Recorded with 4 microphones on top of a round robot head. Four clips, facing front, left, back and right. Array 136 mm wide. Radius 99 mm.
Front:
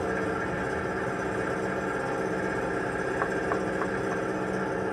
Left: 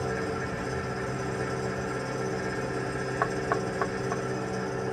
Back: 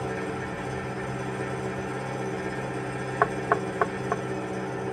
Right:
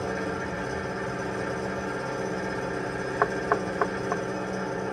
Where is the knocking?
145° right, 0.5 m.